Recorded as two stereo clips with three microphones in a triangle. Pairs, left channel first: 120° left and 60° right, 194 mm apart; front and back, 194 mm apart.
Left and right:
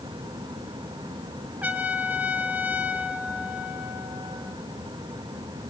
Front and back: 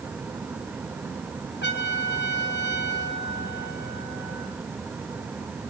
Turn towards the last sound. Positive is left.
turn(degrees=20)